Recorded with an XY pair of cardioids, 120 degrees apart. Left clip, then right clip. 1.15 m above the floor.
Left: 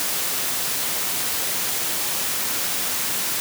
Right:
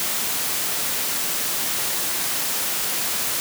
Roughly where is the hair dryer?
I don't hear a hair dryer.